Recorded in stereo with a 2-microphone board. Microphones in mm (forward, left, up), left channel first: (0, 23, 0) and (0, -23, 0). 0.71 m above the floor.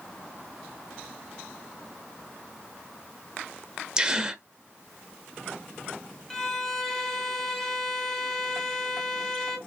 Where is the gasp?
15° right (ahead or behind), 0.8 m.